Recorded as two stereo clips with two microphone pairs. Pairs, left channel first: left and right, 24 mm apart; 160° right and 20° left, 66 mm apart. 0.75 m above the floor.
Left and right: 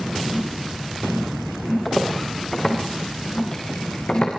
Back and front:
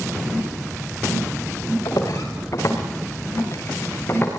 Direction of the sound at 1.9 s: 170° left.